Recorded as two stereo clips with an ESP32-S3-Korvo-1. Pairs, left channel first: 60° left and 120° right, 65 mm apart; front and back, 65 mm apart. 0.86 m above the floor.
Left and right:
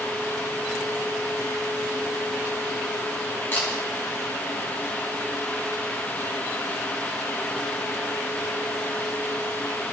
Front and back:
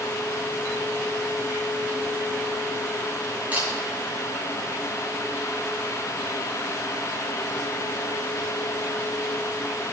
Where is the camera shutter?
115° left, 3 m.